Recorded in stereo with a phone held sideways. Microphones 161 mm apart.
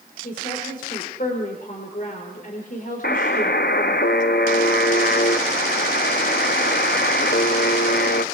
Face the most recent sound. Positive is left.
turn(degrees=85)